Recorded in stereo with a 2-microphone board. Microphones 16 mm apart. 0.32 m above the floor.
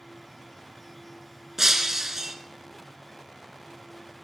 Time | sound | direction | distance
1.6 | breaking glass | 30° right (ahead or behind) | 1.6 m